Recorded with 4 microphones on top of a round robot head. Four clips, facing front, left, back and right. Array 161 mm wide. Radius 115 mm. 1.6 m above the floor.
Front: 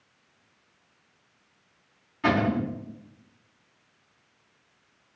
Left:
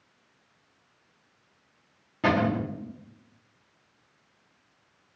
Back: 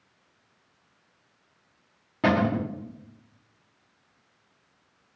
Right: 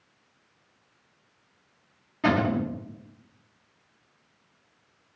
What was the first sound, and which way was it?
A cupboard door, 170° left.